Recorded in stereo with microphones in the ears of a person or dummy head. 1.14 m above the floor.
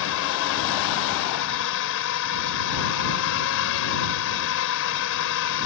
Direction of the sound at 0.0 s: 60° left (ahead or behind).